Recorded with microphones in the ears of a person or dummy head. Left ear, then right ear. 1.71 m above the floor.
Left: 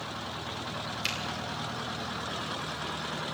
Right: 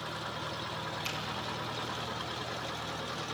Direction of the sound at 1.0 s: 55° left (ahead or behind).